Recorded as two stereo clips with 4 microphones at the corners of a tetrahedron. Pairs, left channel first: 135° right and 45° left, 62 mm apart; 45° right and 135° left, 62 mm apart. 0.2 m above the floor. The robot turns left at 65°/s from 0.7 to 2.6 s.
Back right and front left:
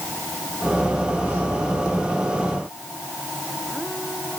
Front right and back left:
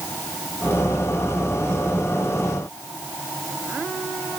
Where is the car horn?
I don't hear a car horn.